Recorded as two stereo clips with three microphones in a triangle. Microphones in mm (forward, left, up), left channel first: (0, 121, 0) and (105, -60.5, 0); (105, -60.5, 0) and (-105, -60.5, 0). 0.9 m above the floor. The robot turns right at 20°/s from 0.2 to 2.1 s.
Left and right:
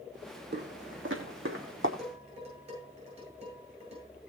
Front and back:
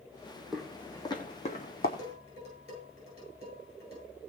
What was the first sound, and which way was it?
Footsteps, 95° right.